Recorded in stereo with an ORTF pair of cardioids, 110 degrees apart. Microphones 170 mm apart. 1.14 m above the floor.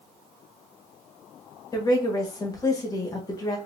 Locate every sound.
1.7 s a woman speaking: 20° left, 1.5 m